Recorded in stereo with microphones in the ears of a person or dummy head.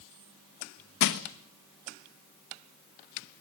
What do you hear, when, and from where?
1.0 s crushing: 60° left (ahead or behind), 1.2 m